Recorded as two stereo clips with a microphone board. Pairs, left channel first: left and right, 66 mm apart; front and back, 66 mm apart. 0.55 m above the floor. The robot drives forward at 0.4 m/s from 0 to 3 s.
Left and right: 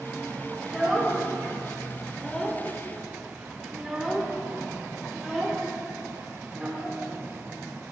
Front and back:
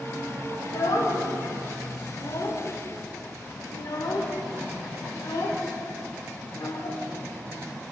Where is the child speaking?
Straight ahead, 2 m; by 7.0 s 5° right, 1.2 m.